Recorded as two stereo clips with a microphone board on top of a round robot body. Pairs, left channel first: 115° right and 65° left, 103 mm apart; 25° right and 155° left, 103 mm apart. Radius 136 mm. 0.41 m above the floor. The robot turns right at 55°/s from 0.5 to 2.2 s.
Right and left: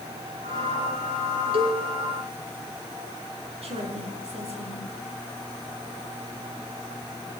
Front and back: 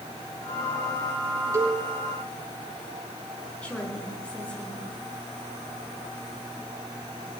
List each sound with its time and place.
1.5 s a cowbell: 95° left, 5 m; by 1.8 s 105° left, 5 m
3.6 s a woman speaking: 55° left, 8.5 m